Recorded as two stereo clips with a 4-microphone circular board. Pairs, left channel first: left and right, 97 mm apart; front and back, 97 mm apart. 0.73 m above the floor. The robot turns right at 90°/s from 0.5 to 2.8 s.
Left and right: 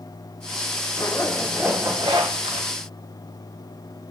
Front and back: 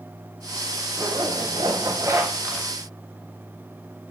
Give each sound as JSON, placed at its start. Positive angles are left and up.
{"t": 1.0, "sound": "a zipper", "azimuth_deg": 130, "distance_m": 1.7}